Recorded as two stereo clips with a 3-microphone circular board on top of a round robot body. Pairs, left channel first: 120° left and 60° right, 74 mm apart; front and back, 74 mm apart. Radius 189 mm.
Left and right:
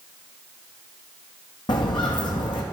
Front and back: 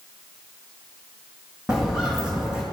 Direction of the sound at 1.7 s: 100° left.